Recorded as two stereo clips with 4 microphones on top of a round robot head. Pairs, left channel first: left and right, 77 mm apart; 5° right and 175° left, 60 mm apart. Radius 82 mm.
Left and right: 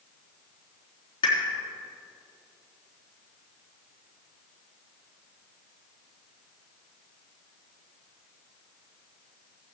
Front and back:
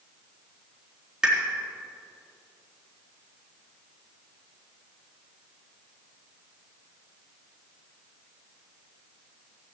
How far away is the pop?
About 3.5 m.